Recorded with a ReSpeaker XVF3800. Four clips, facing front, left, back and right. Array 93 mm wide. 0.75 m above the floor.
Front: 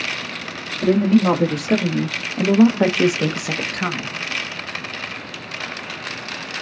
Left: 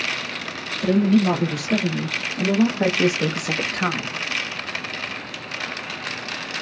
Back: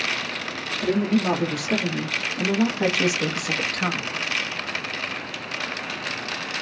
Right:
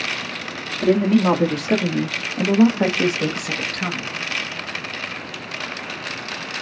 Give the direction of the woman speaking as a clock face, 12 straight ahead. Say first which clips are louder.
Right 2 dB, front 6 dB; 2 o'clock.